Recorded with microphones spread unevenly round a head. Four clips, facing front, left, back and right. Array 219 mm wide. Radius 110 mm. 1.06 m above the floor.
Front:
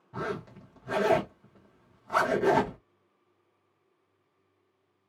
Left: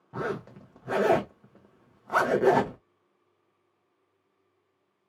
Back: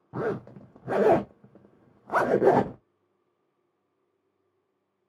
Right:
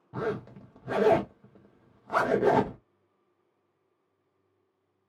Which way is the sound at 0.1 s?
175° left.